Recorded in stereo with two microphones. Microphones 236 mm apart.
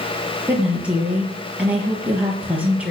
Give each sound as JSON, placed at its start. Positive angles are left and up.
{"t": 0.5, "sound": "a woman speaking", "side_deg": -5, "distance_m": 4.5}